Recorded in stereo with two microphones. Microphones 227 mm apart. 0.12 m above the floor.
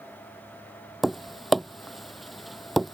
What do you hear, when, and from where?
1.0 s tapping: centre (ahead or behind)